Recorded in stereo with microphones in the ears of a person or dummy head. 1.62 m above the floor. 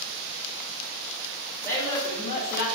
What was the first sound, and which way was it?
A woman speaking, 10° left (ahead or behind).